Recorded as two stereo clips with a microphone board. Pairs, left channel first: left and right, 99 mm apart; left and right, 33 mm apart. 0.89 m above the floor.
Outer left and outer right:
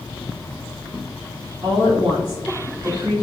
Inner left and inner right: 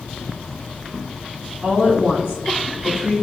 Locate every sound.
1.6 s a woman speaking: 45° right (ahead or behind), 1.4 m